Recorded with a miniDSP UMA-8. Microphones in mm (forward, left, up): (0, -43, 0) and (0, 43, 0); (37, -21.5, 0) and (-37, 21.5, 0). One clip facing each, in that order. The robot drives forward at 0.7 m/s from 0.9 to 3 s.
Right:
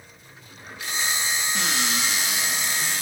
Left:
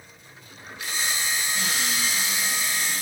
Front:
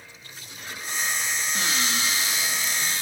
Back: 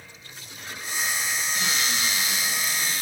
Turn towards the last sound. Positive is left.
turn(degrees=-95)